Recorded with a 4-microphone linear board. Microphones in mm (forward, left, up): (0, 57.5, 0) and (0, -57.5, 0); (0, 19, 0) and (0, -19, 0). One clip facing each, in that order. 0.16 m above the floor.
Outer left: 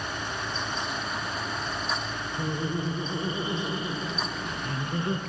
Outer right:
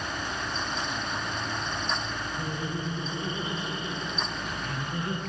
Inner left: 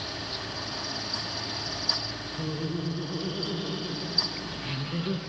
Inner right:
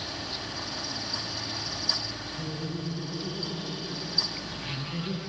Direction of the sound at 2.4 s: 25° left (ahead or behind).